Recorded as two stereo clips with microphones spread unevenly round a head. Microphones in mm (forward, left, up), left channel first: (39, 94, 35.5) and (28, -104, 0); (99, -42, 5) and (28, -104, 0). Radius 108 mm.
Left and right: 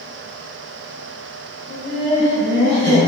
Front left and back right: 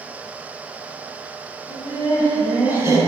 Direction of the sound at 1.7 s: 15° right.